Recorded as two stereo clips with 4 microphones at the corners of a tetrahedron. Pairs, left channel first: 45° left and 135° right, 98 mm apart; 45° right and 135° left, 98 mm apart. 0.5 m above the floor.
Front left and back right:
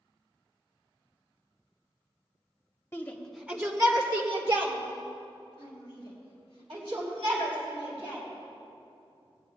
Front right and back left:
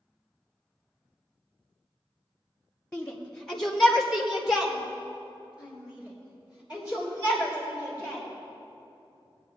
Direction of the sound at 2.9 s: 15° left.